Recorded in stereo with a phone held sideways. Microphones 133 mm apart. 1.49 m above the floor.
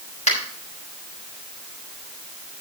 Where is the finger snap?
60° left (ahead or behind), 5.5 m.